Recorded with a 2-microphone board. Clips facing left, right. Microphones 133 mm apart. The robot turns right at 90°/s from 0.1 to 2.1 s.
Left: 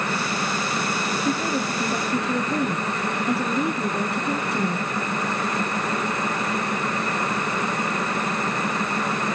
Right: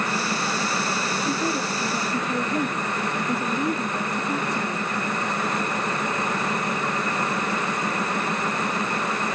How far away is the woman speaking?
About 3 m.